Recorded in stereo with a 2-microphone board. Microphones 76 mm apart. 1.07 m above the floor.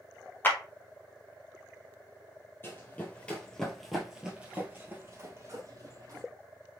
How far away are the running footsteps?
About 1.3 m.